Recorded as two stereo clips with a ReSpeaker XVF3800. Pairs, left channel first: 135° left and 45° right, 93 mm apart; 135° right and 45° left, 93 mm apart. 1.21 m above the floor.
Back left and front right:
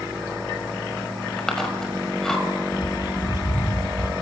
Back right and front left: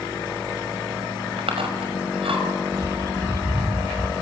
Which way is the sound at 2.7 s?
95° left.